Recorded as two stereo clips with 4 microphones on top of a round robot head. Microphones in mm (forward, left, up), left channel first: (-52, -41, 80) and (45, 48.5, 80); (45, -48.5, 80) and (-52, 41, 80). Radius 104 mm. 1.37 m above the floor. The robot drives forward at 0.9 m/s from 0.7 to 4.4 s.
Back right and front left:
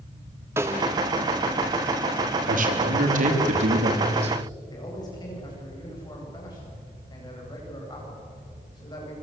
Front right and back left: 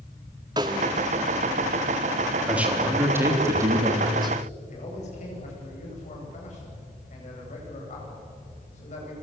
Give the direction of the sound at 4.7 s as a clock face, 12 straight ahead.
3 o'clock.